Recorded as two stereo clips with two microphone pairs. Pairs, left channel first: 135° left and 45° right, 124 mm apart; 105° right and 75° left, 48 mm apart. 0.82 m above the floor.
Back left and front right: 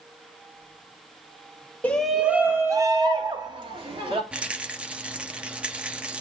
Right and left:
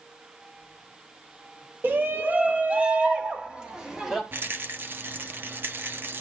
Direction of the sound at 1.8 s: 60° left.